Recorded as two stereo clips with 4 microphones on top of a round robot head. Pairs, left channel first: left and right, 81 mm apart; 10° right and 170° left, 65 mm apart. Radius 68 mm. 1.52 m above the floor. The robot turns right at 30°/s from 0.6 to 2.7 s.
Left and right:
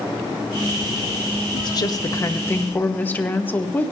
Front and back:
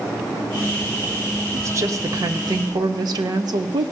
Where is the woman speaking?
120° left, 0.9 m; by 3.9 s 155° left, 0.9 m.